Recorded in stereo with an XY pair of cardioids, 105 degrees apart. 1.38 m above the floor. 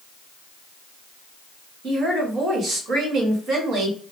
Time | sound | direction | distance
1.8 | a woman speaking | 65° right | 2 m